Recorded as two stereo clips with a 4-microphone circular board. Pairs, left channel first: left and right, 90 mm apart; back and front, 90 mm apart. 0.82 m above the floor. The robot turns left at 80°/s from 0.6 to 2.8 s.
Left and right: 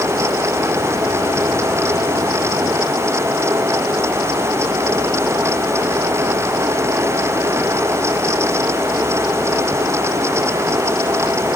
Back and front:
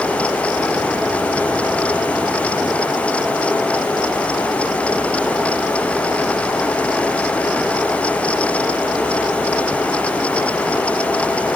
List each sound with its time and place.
Only background noise.